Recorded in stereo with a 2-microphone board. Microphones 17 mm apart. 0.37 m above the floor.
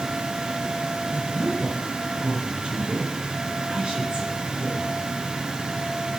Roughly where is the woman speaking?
Right.